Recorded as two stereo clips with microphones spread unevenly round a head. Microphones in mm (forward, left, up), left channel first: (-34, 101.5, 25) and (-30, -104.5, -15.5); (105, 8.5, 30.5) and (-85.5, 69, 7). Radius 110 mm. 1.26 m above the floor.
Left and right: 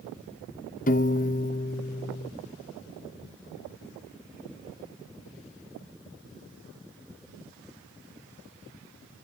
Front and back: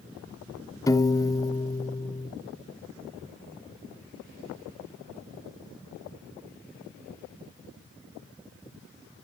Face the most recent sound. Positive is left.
turn(degrees=50)